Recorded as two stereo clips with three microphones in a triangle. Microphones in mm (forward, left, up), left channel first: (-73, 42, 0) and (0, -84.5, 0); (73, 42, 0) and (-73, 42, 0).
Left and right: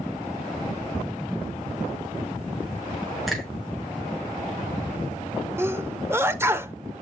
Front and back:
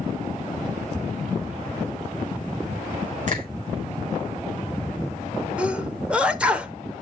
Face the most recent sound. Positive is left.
turn(degrees=-105)